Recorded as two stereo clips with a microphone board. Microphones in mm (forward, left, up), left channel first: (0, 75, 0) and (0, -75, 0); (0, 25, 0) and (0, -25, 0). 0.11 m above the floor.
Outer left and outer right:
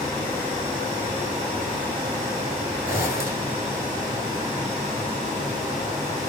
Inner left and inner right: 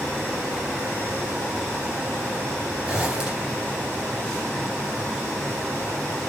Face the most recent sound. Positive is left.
turn(degrees=-20)  # may be behind; listen again after turning